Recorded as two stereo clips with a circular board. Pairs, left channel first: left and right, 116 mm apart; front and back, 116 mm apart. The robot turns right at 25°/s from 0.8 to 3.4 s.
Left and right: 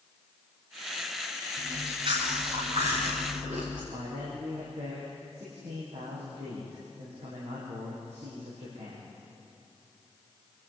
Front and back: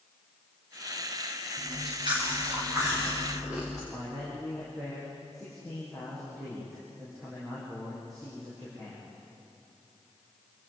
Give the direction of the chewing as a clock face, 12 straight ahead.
5 o'clock.